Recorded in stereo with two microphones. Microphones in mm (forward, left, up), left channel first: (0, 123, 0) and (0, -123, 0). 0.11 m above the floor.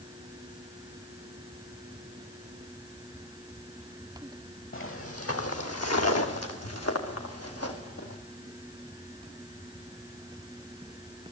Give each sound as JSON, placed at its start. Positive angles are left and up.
{"t": 4.7, "sound": "footsteps", "side_deg": 55, "distance_m": 1.5}